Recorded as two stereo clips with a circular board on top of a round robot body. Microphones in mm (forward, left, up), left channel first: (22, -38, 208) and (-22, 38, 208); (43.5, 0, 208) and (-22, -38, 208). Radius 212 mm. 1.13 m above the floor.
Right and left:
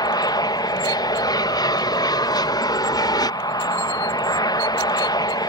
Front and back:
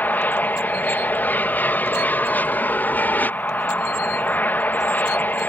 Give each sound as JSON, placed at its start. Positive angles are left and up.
{"t": 0.0, "sound": "an aircraft", "azimuth_deg": -35}